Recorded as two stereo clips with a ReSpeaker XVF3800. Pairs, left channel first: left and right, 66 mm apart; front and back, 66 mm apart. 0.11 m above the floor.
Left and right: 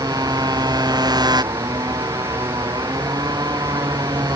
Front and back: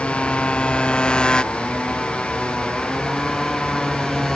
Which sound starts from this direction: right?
A motorcycle, at 0.0 s.